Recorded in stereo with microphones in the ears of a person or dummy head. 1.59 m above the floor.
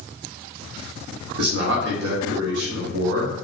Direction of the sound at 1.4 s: 65° right (ahead or behind).